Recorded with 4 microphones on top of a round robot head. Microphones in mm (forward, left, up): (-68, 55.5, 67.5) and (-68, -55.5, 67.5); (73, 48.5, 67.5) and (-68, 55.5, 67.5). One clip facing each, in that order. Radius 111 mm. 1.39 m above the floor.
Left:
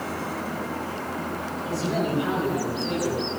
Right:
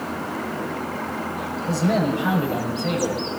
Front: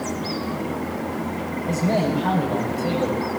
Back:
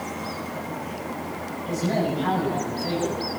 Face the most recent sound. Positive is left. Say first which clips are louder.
# right 5 dB, front 3 dB
turn(degrees=-55)